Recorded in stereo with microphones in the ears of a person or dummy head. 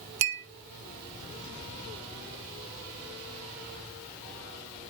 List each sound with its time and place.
0.2 s a clink: 65° right (ahead or behind), 1.5 m